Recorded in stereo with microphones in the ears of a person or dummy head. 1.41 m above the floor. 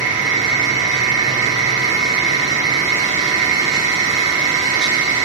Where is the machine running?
35° right (ahead or behind), 8.5 m.